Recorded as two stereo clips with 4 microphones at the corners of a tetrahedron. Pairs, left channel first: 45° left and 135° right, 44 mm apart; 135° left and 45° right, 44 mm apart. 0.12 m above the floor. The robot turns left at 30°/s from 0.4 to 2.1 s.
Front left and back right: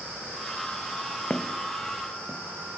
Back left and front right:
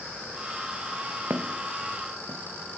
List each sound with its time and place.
1.3 s footsteps: 20° right, 0.9 m; by 2.4 s 35° right, 1.7 m